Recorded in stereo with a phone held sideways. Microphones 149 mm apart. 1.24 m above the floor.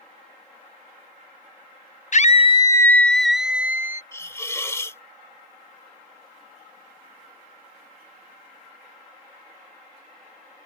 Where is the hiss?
20° left (ahead or behind).